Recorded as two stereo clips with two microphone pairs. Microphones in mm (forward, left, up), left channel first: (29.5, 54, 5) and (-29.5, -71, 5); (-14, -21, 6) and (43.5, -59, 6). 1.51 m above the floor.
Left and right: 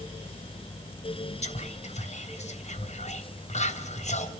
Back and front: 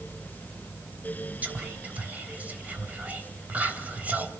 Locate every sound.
1.4 s whispering: 35° left, 1.2 m